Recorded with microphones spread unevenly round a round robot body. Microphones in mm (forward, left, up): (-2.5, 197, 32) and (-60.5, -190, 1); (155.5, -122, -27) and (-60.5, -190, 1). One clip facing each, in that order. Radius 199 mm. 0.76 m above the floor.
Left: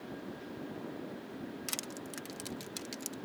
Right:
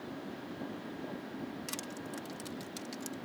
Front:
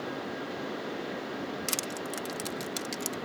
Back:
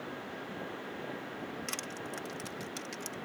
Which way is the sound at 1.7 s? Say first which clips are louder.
Right 2 dB, front 6 dB; straight ahead.